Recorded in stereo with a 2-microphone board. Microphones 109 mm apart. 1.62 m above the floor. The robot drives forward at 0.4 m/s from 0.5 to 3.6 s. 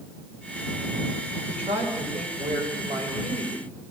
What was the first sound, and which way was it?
A woman speaking, 70° right (ahead or behind).